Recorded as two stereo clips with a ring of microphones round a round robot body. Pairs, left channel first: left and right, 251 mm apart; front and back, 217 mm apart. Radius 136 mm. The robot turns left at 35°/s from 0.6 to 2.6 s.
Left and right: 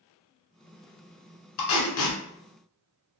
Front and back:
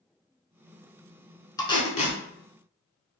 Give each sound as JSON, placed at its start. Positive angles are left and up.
{"t": 1.6, "sound": "tape being pulled", "azimuth_deg": 75, "distance_m": 1.0}